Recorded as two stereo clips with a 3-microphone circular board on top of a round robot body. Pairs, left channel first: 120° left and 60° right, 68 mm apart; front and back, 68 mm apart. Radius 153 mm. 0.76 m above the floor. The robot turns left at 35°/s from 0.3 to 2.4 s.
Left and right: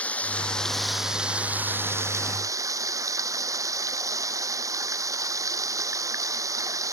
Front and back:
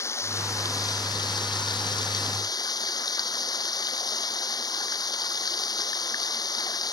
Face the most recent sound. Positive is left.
turn(degrees=-20)